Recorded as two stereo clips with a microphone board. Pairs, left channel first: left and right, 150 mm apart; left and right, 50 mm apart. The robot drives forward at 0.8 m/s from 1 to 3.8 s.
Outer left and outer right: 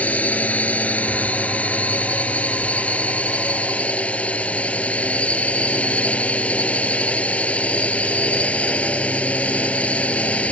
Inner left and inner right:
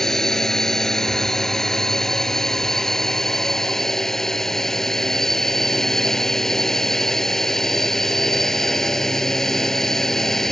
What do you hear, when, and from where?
0.0 s a drone: 10° left (ahead or behind)